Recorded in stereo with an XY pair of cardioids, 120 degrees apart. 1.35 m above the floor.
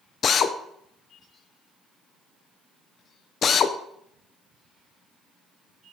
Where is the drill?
45° left, 0.5 m.